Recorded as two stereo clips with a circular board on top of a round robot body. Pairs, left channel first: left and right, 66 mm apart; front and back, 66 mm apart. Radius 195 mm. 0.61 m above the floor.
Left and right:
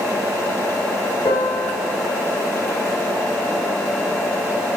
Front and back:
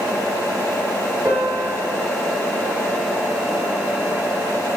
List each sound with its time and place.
1.2 s a piano: 110° left, 0.7 m